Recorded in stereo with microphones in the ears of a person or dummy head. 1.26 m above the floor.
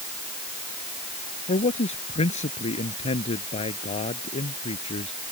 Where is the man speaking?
30° left (ahead or behind).